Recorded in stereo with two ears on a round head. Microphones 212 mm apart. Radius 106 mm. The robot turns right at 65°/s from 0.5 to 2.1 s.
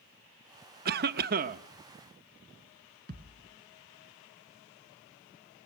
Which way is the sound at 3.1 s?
45° right (ahead or behind).